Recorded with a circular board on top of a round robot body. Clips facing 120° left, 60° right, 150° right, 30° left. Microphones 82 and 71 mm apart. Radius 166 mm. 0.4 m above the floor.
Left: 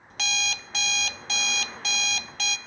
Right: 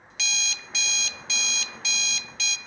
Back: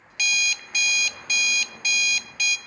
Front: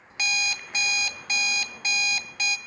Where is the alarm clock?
85° left, 0.5 m.